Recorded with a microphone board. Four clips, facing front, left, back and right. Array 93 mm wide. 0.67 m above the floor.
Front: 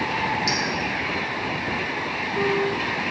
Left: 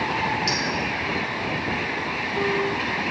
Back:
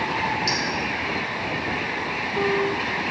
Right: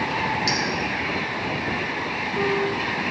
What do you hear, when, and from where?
0.5 s a clink: 85° right, 1.7 m